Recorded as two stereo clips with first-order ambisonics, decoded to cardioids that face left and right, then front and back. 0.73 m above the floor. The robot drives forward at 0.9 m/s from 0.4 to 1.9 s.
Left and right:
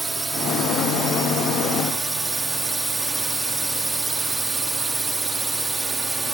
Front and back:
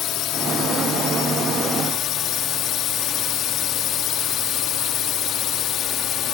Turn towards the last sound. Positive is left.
turn(degrees=-15)